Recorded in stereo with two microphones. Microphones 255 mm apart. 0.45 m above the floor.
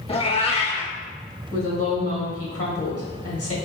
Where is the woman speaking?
65° left (ahead or behind), 1.8 m.